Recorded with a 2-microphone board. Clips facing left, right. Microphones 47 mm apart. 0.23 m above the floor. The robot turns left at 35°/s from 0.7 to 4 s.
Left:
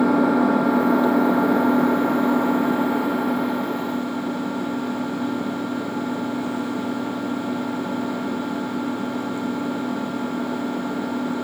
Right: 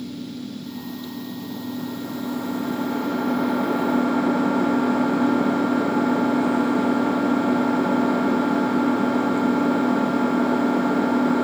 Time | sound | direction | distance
0.0 | an engine running | 95° left | ?